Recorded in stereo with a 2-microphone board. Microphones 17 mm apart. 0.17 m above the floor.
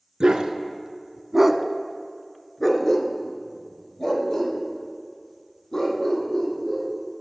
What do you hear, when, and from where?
0.2 s a dog barking: 60° right (ahead or behind), 0.8 m; by 7.2 s 50° left (ahead or behind), 3.5 m